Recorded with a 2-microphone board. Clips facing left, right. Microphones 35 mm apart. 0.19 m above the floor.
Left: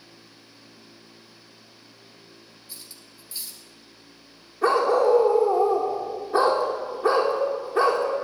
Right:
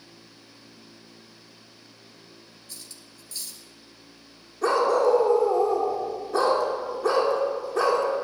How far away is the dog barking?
About 3.5 m.